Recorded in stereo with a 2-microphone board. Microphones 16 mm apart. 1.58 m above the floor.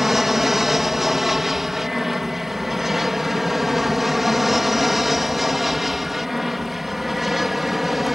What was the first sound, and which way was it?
An aircraft, 20° right (ahead or behind).